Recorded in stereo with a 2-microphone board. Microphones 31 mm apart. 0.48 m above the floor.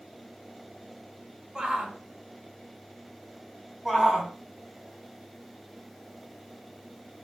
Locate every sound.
1.6 s a shout: 25° right (ahead or behind), 4 m
3.9 s a shout: 5° left (ahead or behind), 3 m